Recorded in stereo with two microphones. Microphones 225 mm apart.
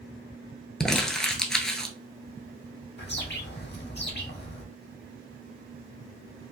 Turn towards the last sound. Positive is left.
turn(degrees=50)  # may be behind; listen again after turning